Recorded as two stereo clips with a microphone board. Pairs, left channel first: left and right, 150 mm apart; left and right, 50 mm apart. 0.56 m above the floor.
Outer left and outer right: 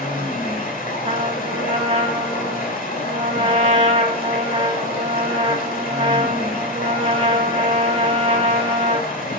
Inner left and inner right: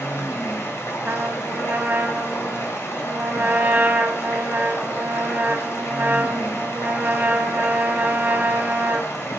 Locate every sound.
0.0 s running water: 75° left (ahead or behind), 1.5 m
1.0 s a trumpet: 45° right (ahead or behind), 0.7 m